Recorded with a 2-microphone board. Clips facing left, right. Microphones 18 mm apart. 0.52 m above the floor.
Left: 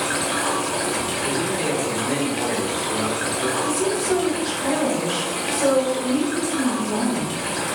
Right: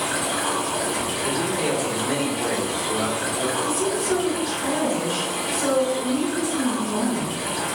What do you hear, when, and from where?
0.0 s running water: 70° left (ahead or behind), 1.2 m
1.2 s a man speaking: 25° right (ahead or behind), 0.8 m
3.6 s a woman speaking: 40° left (ahead or behind), 1.2 m